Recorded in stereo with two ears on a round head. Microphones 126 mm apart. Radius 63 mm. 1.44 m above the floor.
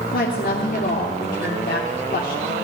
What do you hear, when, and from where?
0.1 s a woman speaking: 70° left (ahead or behind), 3.5 m